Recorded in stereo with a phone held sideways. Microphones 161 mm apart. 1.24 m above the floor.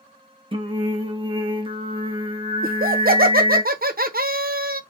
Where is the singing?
35° right (ahead or behind), 0.6 m.